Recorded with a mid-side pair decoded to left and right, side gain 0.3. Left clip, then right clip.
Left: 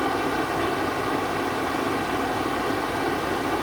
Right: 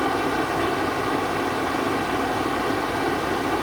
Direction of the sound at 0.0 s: 25° right.